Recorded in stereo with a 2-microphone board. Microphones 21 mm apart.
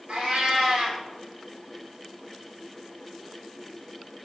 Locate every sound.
0.1 s a cat meowing: 65° right (ahead or behind), 1.7 m